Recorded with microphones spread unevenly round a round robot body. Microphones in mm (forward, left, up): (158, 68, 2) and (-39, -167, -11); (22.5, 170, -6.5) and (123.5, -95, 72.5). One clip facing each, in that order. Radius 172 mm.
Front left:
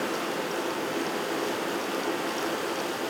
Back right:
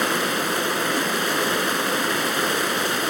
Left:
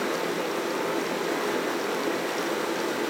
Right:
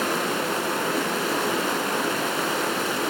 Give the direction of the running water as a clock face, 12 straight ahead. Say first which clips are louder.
Back right 5 dB, right 1 dB; 4 o'clock.